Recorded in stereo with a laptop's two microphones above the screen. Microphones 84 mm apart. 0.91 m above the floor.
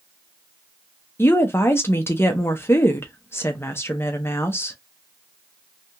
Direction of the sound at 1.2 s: 25° left (ahead or behind).